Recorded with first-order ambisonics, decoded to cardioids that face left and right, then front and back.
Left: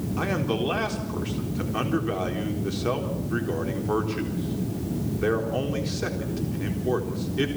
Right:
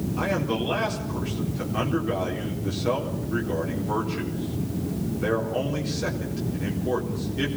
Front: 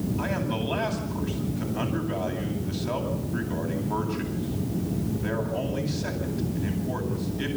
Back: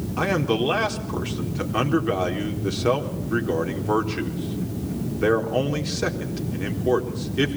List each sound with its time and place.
0.2 s a man speaking: 170° left, 4 m